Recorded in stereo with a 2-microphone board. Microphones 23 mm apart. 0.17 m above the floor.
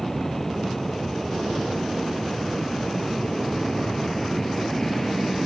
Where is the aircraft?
10° left (ahead or behind); by 5.5 s 15° left (ahead or behind).